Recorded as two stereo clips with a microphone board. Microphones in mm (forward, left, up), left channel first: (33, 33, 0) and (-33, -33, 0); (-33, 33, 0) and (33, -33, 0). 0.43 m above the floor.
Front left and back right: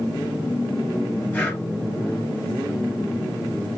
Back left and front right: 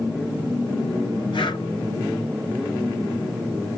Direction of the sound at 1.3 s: 115° left.